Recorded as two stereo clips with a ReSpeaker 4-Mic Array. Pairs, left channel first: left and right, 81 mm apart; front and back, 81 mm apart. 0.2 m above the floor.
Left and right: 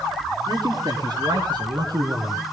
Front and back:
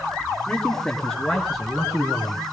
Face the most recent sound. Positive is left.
turn(degrees=-100)